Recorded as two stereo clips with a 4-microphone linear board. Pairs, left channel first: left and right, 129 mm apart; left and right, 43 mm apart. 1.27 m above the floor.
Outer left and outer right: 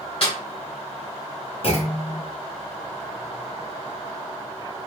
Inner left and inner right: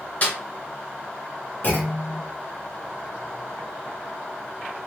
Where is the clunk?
50° left (ahead or behind), 0.9 m.